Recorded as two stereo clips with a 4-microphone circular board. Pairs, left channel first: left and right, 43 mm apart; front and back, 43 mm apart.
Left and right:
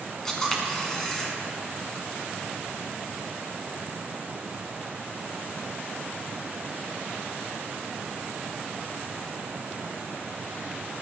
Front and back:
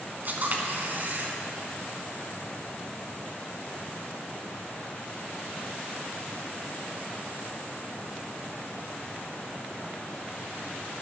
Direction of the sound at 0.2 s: 165° left.